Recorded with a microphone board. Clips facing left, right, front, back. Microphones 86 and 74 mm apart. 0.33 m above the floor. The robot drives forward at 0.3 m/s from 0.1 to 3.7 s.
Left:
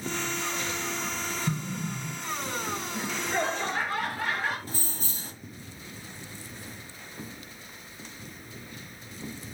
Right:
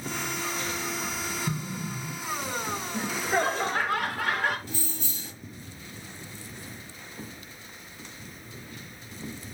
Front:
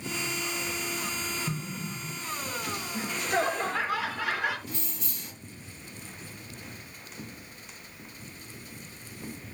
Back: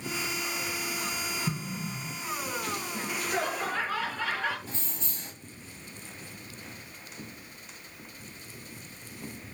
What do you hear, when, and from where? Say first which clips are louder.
1.5 s an explosion: left 1 dB, back 1 dB; 170° left, 2.5 m
2.9 s laughter: right 4 dB, front 5 dB; 75° right, 3.5 m; by 4.6 s 80° right, 3.5 m
4.7 s keys jangling: right 1 dB, front 1 dB; 130° left, 1.5 m